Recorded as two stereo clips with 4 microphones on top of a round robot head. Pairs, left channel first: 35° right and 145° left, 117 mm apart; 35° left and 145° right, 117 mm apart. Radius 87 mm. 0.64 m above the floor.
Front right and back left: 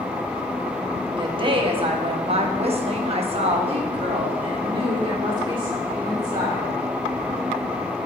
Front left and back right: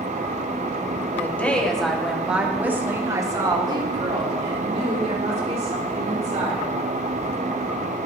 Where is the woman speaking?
105° left, 1.6 m; by 6.8 s 165° right, 3 m.